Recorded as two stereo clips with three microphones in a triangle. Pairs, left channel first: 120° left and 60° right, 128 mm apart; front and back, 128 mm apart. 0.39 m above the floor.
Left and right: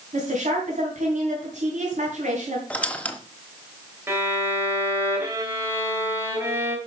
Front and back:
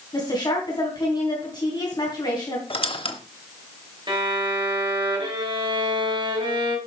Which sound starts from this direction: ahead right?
A woman speaking, at 0.1 s.